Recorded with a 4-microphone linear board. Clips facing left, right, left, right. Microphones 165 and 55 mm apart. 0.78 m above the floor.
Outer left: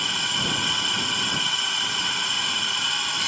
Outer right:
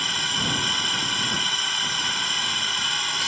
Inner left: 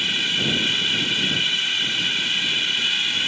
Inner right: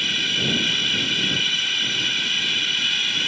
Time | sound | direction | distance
0.0 | a drone | centre (ahead or behind) | ?